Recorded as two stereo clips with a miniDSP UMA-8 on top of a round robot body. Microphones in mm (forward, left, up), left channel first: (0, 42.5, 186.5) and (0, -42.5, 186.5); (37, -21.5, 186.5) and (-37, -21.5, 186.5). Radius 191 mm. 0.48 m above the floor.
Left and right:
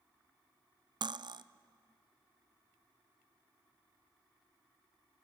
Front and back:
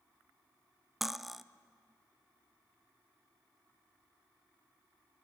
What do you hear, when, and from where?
1.0 s cutlery clinking: 90° right, 0.6 m